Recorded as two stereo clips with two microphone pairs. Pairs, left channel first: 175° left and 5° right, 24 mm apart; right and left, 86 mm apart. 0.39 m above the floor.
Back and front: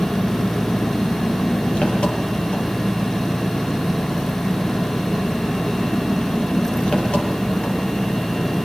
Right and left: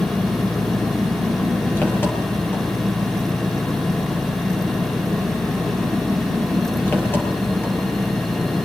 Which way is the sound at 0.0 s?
155° right.